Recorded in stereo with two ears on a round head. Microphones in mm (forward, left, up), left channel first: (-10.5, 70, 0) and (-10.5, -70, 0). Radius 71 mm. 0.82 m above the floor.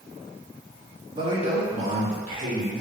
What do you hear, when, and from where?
1.1 s a man speaking: 30° right (ahead or behind), 1.2 m; by 2.8 s 60° right (ahead or behind), 2.5 m